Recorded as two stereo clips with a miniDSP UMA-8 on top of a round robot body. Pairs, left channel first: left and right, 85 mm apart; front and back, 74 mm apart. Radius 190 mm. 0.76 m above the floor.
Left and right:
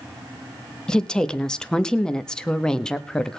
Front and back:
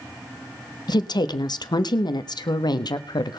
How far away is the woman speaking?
About 1.1 m.